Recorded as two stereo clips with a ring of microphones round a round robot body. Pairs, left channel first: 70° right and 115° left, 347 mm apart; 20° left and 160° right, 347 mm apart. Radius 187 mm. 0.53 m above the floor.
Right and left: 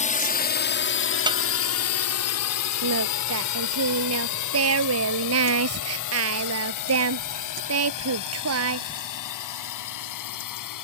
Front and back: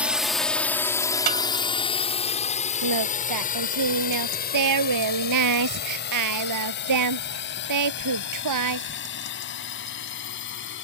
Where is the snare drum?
170° right.